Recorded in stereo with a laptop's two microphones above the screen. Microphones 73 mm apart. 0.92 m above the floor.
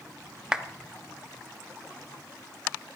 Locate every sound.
0.5 s a clap: 10° right (ahead or behind), 0.9 m